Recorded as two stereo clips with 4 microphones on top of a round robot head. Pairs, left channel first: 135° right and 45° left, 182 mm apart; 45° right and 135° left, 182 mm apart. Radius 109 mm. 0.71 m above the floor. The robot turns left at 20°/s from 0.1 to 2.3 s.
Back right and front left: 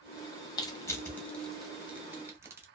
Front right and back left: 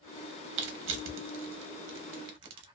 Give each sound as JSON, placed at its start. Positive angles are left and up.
{"t": 0.6, "sound": "crushing", "azimuth_deg": 155, "distance_m": 0.6}